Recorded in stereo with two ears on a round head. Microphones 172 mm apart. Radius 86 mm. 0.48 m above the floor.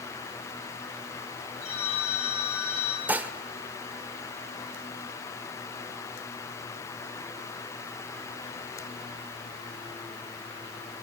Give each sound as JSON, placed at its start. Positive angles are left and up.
{"t": 1.6, "sound": "a phone ringing", "side_deg": 35, "distance_m": 6.0}
{"t": 3.1, "sound": "dishes clattering", "side_deg": -10, "distance_m": 0.9}